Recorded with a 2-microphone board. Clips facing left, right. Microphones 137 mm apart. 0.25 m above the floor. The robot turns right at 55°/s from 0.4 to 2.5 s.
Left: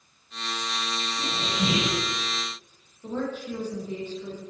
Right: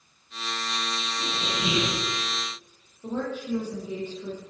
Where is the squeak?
20° left, 7.5 m; by 2.0 s 65° left, 7.5 m.